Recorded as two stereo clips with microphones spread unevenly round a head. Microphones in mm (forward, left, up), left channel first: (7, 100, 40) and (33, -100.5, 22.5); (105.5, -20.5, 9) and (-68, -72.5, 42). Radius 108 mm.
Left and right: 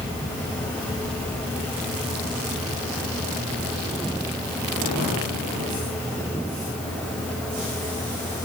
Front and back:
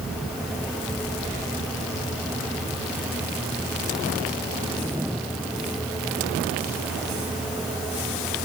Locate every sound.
Only background noise.